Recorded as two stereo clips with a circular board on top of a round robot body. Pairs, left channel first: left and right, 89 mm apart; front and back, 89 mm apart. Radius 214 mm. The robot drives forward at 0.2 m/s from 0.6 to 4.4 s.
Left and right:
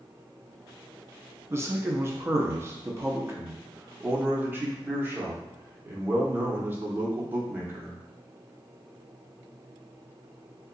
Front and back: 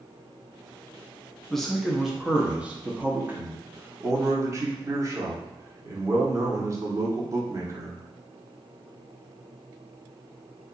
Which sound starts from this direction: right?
A man speaking, at 1.5 s.